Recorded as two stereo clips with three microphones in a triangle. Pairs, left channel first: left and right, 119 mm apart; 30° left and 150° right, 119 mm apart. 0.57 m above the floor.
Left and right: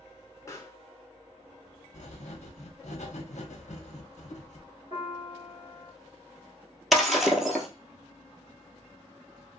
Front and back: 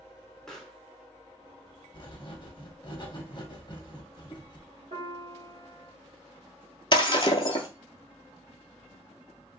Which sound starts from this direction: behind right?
A piano, at 4.9 s.